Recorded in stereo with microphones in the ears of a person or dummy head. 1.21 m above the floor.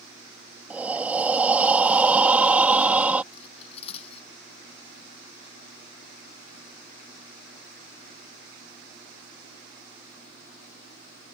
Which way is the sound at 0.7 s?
10° right (ahead or behind).